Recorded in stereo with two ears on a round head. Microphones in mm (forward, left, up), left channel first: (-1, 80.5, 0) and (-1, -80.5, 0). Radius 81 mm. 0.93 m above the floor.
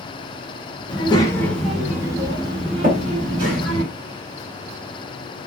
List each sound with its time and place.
0.9 s a child speaking: 30° left (ahead or behind), 0.9 m; by 3.8 s 55° right (ahead or behind), 1.5 m
2.8 s tapping: 60° right (ahead or behind), 1.6 m